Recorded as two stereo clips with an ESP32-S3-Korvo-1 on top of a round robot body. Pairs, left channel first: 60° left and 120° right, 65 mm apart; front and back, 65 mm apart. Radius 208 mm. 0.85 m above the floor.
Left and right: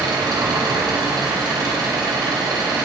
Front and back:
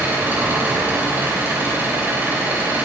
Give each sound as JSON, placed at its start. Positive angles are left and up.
{"t": 0.0, "sound": "an engine running", "azimuth_deg": -115, "distance_m": 3.0}